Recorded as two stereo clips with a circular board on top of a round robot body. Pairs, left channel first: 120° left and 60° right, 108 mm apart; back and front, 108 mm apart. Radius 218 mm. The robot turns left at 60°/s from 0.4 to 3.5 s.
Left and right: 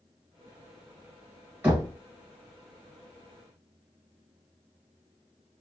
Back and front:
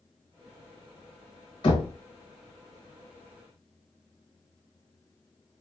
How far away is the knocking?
About 0.8 m.